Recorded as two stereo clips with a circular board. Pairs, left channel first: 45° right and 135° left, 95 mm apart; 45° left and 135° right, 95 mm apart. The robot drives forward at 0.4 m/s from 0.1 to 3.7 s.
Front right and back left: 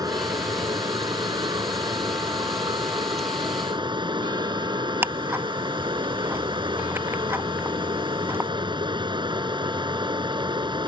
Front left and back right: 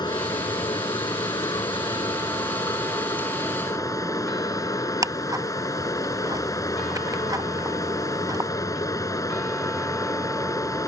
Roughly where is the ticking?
Behind.